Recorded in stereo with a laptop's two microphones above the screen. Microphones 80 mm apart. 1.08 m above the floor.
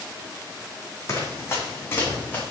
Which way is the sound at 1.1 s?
40° left (ahead or behind).